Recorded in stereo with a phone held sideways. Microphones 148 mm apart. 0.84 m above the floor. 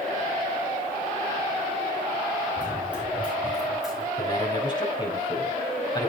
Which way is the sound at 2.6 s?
10° right (ahead or behind).